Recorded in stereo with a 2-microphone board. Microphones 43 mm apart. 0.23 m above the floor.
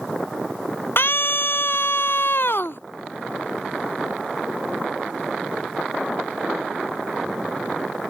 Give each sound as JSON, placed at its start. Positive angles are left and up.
{"t": 1.0, "sound": "a scream", "side_deg": 55}